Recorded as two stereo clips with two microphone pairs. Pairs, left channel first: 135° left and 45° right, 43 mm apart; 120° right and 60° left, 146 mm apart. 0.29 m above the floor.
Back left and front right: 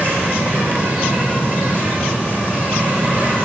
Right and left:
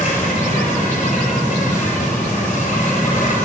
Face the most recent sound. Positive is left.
turn(degrees=-95)